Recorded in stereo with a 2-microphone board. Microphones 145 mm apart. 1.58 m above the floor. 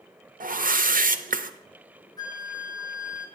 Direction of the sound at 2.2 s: 25° left (ahead or behind).